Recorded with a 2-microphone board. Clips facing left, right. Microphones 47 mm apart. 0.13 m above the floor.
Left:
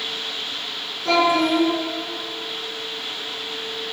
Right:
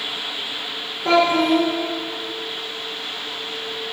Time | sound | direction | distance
1.1 | a child speaking | 25° right (ahead or behind) | 0.8 m